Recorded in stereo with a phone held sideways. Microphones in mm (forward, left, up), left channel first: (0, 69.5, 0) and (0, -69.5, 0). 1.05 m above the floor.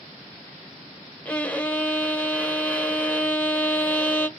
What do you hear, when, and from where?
1.2 s a violin: 10° left (ahead or behind), 0.6 m